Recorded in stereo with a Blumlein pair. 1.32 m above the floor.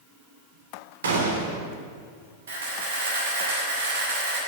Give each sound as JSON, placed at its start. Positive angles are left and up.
{"t": 1.0, "sound": "a gunshot", "azimuth_deg": -65, "distance_m": 3.0}
{"t": 2.5, "sound": "a camera shutter", "azimuth_deg": -60, "distance_m": 5.5}